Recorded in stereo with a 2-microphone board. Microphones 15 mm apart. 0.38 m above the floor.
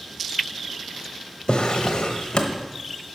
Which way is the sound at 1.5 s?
65° left (ahead or behind).